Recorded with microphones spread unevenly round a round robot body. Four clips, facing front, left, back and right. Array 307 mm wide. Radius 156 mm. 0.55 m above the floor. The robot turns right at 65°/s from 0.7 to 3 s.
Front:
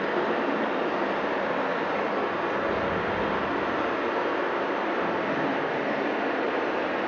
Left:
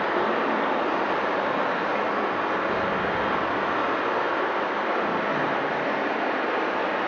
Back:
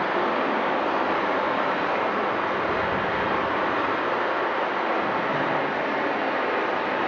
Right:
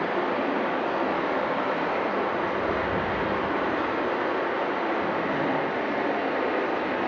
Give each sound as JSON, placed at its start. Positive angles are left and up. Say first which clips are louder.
{"t": 0.0, "sound": "running water", "louder": "left 2 dB, back 2 dB", "azimuth_deg": 150, "distance_m": 1.1}